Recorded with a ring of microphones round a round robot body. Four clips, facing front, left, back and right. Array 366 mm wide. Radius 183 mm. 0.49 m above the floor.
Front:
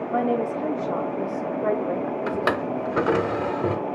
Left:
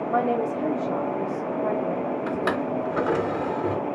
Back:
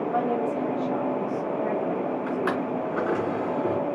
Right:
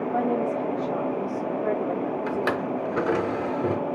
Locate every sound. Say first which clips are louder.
0.1 s a woman speaking: left 2 dB, front 4 dB; 75° left, 1.0 m; by 2.7 s 15° right, 1.5 m
2.3 s a drawer: left 1 dB, front 2 dB; 5° right, 0.8 m